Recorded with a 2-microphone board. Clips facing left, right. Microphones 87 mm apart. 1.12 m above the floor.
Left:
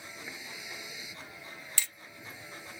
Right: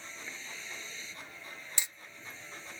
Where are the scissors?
No scissors in this recording.